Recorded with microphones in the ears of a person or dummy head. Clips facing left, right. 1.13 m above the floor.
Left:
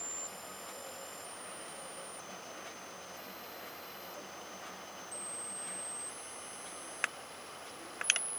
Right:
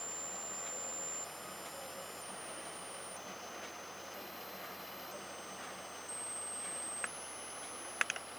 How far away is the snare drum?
I don't hear a snare drum.